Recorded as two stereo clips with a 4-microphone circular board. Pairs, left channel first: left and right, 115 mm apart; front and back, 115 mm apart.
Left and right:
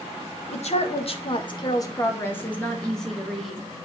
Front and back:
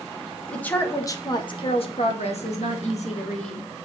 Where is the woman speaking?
80° left, 1.7 m; by 3.7 s 5° right, 3 m.